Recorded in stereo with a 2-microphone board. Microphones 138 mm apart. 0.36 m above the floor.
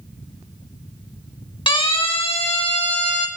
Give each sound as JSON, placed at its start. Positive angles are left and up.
{"t": 1.7, "sound": "a siren", "side_deg": 35, "distance_m": 4.0}